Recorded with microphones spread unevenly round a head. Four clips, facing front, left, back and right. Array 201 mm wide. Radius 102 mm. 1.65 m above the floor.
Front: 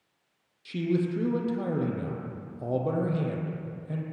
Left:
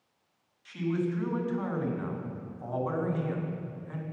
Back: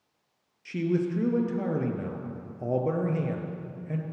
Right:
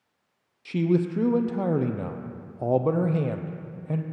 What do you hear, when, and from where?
0.7 s a man speaking: 95° right, 0.6 m